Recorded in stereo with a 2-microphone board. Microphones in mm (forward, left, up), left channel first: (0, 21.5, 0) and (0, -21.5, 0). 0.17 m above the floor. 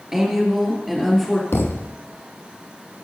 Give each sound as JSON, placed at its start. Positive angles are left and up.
{"t": 0.1, "sound": "a woman speaking", "side_deg": -15, "distance_m": 3.0}
{"t": 1.5, "sound": "a thud", "side_deg": 70, "distance_m": 1.0}